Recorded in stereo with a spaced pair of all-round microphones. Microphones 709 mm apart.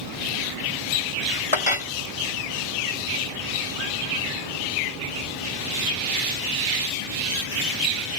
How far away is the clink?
About 0.7 m.